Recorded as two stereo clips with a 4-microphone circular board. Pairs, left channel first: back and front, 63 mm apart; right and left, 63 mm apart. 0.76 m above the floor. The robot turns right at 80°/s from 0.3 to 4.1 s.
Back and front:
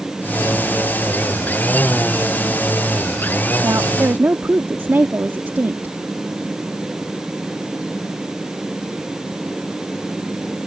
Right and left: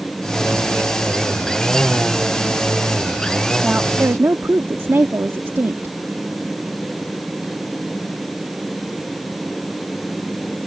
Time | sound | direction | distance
3.6 | a woman speaking | 10° left | ?